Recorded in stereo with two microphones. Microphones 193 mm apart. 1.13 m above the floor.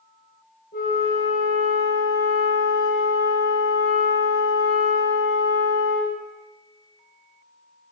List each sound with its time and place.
0.7 s a flute: 65° left (ahead or behind), 4.5 m